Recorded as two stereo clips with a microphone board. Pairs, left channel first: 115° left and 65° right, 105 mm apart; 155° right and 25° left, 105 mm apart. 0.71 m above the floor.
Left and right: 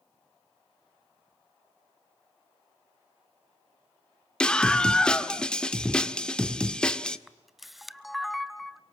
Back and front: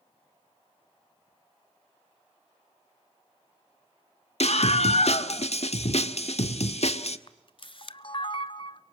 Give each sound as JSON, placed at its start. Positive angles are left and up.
{"t": 4.4, "sound": "a scream", "azimuth_deg": -165, "distance_m": 1.5}
{"t": 7.3, "sound": "a camera shutter", "azimuth_deg": -155, "distance_m": 0.8}